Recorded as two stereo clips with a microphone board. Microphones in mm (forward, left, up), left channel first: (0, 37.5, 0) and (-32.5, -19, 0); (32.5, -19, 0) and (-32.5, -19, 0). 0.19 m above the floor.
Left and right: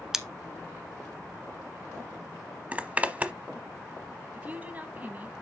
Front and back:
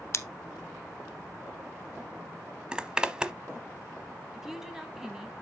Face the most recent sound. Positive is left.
turn(degrees=-105)